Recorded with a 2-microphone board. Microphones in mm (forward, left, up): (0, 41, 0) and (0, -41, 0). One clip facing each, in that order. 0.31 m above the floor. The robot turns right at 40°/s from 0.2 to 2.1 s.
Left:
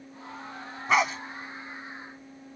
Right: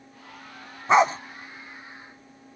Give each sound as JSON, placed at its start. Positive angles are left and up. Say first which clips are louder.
{"t": 0.9, "sound": "a dog barking", "louder": "right 6 dB", "side_deg": -25}